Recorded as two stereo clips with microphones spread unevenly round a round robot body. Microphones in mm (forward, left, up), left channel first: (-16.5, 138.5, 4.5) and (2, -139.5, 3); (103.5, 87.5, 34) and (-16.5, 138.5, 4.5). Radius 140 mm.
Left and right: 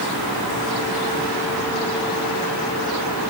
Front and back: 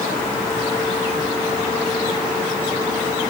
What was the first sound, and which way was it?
Only background noise.